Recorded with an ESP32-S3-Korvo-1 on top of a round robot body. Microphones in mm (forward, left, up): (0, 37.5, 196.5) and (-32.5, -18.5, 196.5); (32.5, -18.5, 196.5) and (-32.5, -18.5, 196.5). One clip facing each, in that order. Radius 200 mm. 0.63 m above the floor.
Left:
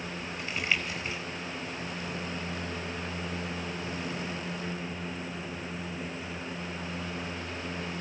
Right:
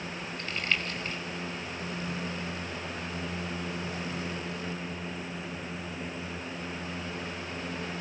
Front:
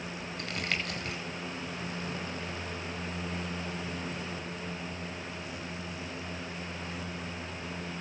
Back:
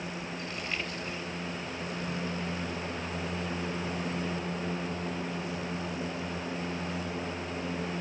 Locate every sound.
0.4 s crumpling: 20° right, 0.5 m